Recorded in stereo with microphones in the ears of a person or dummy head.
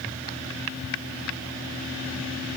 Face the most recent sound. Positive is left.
No sound to turn to.